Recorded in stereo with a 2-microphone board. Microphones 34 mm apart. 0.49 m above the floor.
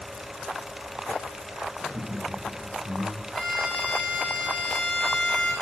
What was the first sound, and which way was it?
Laughter, 25° right (ahead or behind).